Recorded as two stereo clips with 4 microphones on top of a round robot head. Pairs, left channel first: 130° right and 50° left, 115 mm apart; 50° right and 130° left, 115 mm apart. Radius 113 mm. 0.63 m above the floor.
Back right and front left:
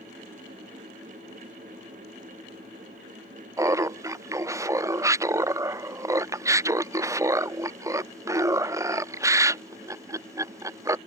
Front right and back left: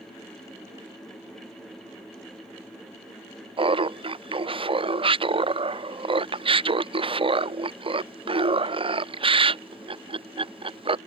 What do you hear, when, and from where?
3.6 s laughter: 105° left